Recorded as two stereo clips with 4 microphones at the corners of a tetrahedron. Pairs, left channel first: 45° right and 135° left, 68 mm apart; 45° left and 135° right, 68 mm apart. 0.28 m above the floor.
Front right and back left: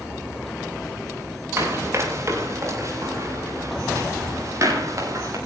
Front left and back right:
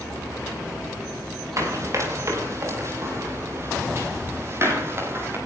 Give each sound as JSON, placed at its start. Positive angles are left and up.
{"t": 1.6, "sound": "running footsteps", "azimuth_deg": -175, "distance_m": 6.0}